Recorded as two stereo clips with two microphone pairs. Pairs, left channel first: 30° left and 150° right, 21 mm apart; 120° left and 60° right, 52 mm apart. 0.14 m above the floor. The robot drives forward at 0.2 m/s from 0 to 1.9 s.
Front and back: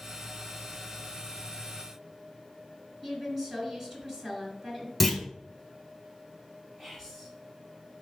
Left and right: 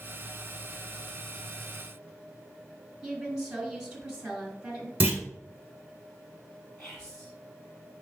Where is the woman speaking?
130° right, 1.6 m.